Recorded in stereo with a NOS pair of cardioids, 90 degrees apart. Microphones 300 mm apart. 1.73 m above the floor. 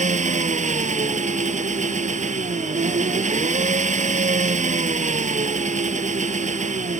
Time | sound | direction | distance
0.0 | an engine running | 25° right | ?